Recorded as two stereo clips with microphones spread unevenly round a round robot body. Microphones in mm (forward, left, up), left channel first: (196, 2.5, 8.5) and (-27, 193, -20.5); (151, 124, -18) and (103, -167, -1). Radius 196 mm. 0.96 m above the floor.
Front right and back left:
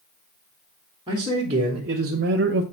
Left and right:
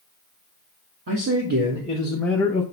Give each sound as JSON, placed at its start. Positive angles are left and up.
{"t": 1.1, "sound": "a man speaking", "azimuth_deg": -145, "distance_m": 1.4}